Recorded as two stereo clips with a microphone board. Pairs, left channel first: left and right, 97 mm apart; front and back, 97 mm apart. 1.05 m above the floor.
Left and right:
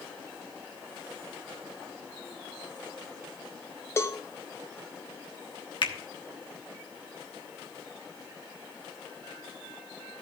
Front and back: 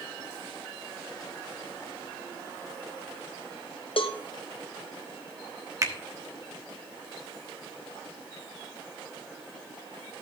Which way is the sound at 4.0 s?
25° left.